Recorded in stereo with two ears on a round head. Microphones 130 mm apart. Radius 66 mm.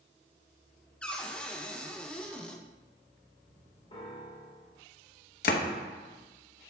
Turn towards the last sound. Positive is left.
turn(degrees=60)  # may be behind; listen again after turning